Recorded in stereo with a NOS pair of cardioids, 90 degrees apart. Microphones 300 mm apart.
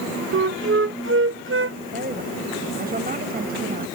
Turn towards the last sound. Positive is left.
turn(degrees=-30)